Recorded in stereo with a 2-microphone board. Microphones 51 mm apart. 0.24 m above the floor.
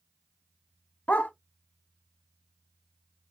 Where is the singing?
No singing in this recording.